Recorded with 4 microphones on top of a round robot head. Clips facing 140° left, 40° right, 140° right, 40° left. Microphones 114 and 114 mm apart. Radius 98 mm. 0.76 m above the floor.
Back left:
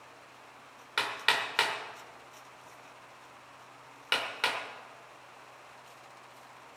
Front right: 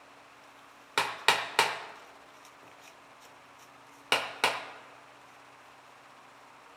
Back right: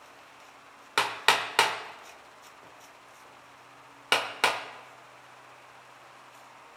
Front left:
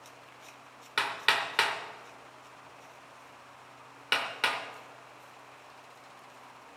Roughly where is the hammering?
Right.